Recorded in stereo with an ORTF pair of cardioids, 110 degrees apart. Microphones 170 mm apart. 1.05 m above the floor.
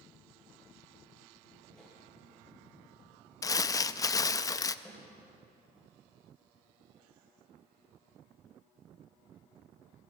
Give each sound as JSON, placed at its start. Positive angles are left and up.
{"t": 1.7, "sound": "a whoosh", "azimuth_deg": 5, "distance_m": 9.5}
{"t": 3.4, "sound": "crumpling", "azimuth_deg": 20, "distance_m": 0.6}
{"t": 4.8, "sound": "a snare drum", "azimuth_deg": 10, "distance_m": 5.5}